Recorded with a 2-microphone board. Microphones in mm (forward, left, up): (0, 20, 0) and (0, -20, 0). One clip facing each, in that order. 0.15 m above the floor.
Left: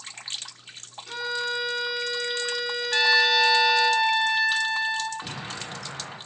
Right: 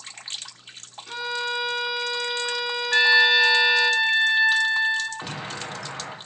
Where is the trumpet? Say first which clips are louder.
Right 3 dB; 25° right (ahead or behind), 0.6 m.